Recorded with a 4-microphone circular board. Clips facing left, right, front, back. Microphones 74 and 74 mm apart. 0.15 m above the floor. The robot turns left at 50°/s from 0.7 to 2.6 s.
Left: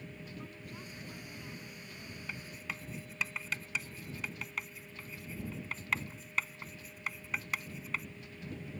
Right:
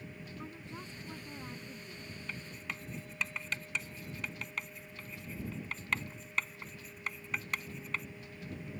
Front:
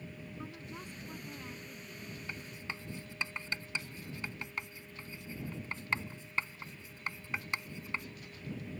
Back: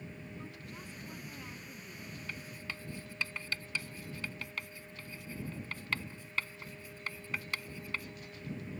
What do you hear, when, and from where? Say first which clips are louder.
0.4 s a woman speaking: right 2 dB, front 2 dB; 50° right; by 2.2 s 125° right
2.3 s writing: even, front 1 dB; 20° left; by 8.1 s 5° left